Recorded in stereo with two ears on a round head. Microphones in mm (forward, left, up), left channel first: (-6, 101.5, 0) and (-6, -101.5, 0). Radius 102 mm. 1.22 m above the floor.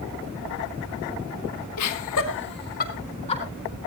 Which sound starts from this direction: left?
Laughter, at 1.8 s.